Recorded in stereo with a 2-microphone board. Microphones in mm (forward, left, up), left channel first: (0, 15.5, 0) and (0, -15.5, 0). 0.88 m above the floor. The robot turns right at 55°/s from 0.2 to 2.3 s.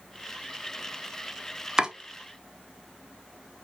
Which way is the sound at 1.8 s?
25° right (ahead or behind).